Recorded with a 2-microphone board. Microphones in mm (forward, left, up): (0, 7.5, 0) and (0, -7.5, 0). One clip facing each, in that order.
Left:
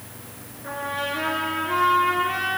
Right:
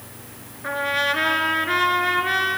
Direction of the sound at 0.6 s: 40° right (ahead or behind).